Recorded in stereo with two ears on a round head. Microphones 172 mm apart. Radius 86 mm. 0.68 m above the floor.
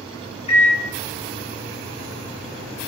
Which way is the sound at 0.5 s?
30° left (ahead or behind).